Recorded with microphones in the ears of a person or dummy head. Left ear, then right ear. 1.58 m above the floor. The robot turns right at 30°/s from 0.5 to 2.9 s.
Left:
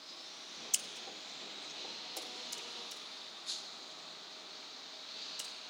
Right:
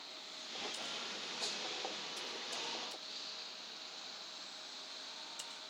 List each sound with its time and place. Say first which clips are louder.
0.7 s scissors: left 2 dB; 65° left (ahead or behind), 0.6 m; by 5.5 s 5° left (ahead or behind), 0.6 m